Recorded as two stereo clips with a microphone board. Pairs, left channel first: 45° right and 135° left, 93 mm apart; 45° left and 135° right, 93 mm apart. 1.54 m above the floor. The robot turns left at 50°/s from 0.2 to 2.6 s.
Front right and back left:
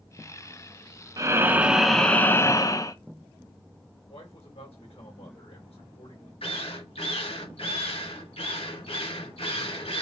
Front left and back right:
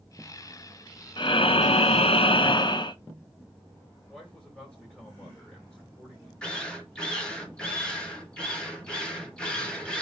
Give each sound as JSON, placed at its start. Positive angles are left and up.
{"t": 1.2, "sound": "breathing", "azimuth_deg": 80, "distance_m": 0.6}
{"t": 4.1, "sound": "a man speaking", "azimuth_deg": -35, "distance_m": 2.5}
{"t": 6.4, "sound": "a drill", "azimuth_deg": -35, "distance_m": 2.0}